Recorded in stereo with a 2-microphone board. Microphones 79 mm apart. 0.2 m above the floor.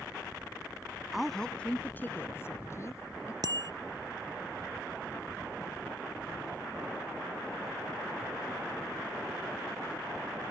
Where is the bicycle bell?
60° right (ahead or behind).